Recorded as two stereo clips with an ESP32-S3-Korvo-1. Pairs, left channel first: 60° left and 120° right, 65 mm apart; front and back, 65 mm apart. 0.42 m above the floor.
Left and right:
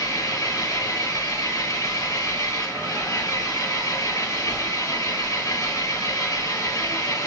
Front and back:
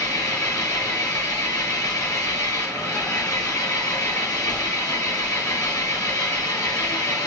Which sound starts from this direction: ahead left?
An engine running, at 0.0 s.